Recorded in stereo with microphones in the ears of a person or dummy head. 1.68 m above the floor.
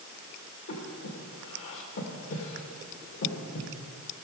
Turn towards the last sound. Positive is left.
turn(degrees=75)  # may be behind; listen again after turning